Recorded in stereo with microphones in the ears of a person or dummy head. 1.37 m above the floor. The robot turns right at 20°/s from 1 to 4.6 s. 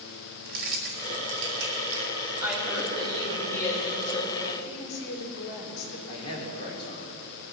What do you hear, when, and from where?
0.5 s keys jangling: 50° right (ahead or behind), 1.8 m; by 2.1 s 70° right (ahead or behind), 1.8 m
2.4 s a woman speaking: 10° right, 6 m; by 4.5 s 35° left, 6 m
4.6 s a woman speaking: 65° left (ahead or behind), 4 m
6.1 s a man speaking: 30° left (ahead or behind), 5 m